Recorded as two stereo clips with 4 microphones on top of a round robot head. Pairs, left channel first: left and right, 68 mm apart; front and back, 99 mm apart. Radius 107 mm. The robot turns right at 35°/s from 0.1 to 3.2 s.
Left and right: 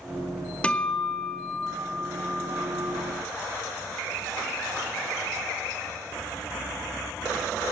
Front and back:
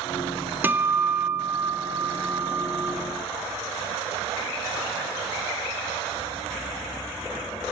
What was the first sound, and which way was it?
A guitar, 140° left.